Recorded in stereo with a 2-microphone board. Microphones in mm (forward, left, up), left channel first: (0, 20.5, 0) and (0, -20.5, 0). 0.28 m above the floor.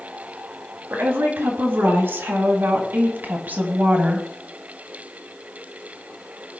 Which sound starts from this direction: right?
A woman speaking, at 0.9 s.